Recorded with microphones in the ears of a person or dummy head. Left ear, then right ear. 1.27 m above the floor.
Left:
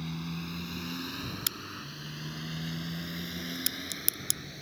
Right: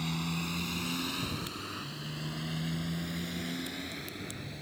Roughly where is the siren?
I don't hear a siren.